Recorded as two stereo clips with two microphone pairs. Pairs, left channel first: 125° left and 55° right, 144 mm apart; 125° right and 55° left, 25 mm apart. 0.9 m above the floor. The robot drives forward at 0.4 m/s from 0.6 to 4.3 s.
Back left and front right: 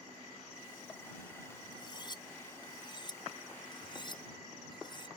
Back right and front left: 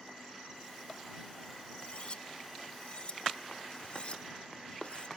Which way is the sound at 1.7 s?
175° right.